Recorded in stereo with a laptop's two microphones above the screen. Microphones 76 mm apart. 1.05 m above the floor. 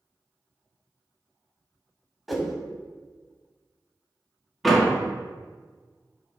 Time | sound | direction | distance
2.3 | a whoosh | centre (ahead or behind) | 1.1 m
4.6 | a door slam | centre (ahead or behind) | 1.5 m